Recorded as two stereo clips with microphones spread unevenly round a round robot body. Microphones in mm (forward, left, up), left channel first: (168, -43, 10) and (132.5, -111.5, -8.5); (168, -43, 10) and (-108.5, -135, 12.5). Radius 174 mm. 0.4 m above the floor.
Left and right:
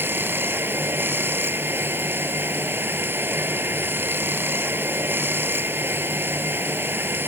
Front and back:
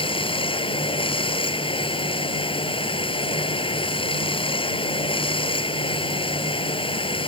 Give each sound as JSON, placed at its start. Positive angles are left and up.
{"t": 0.0, "sound": "running water", "azimuth_deg": -55}